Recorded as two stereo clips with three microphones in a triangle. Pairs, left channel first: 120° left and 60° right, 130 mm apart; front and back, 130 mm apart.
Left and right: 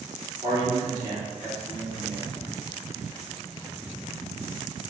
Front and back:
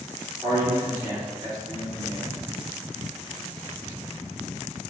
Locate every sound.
0.4 s a man speaking: 105° right, 1.1 m